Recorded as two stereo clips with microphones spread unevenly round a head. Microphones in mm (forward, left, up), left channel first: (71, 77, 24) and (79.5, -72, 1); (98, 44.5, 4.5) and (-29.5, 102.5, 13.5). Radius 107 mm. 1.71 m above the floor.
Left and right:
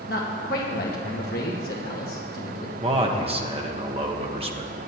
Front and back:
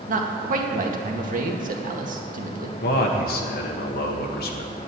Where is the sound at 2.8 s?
35° right, 1.5 m.